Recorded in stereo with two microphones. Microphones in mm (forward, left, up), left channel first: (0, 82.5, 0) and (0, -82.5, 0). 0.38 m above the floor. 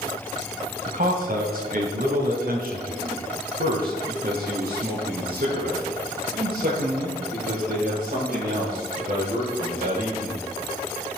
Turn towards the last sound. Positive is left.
turn(degrees=-60)  # may be behind; listen again after turning